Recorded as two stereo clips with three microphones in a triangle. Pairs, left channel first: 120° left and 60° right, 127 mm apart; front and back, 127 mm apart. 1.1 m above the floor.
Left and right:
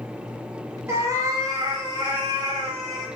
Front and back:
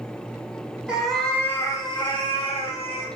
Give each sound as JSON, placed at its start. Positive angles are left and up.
{"t": 0.9, "sound": "a cat meowing", "azimuth_deg": -105, "distance_m": 0.8}